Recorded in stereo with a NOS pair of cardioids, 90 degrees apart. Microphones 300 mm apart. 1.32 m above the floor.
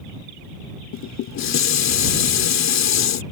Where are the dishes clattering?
65° left.